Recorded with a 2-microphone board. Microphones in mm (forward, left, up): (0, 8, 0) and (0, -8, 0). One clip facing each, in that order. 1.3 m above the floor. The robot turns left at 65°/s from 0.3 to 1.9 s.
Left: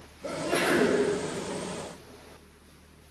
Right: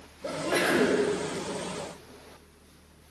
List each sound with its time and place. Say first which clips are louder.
0.2 s a sneeze: even; 20° right, 4 m; by 1.0 s 70° right, 4 m